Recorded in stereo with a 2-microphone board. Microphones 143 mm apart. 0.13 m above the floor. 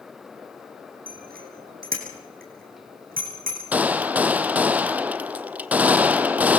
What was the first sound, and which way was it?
A bicycle bell, 75° right (ahead or behind).